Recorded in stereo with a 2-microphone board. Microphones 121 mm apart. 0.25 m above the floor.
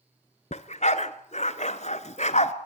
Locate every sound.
0.5 s a dog barking: 75° left (ahead or behind), 1.2 m